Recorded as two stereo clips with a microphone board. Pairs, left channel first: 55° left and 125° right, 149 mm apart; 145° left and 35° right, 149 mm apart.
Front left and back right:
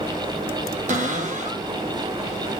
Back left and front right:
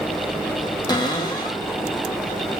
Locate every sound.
0.9 s a cupboard door: 155° right, 0.9 m